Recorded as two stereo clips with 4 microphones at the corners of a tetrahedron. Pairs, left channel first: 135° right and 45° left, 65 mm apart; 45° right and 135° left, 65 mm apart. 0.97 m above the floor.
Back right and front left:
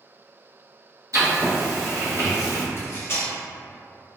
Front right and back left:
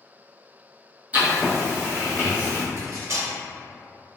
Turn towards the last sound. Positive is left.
turn(degrees=180)